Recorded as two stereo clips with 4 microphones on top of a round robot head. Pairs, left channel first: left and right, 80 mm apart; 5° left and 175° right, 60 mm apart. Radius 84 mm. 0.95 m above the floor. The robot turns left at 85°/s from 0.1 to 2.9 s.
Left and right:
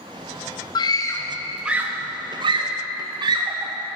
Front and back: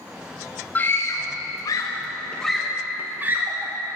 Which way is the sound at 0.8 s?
65° left.